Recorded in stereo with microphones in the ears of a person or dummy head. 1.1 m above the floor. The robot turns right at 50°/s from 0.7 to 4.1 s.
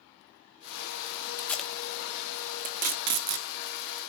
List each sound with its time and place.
1.4 s tape being pulled: 15° left (ahead or behind), 0.9 m; by 3.5 s 60° right (ahead or behind), 0.9 m